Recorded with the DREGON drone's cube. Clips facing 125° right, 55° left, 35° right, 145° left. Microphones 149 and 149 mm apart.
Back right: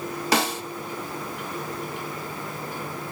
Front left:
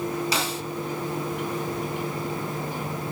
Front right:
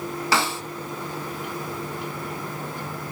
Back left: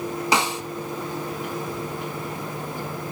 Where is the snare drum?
145° right, 0.9 m.